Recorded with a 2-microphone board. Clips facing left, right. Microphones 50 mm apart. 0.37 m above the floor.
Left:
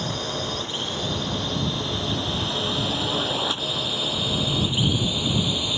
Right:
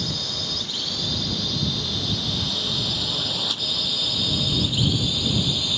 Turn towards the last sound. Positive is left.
turn(degrees=20)  # may be behind; listen again after turning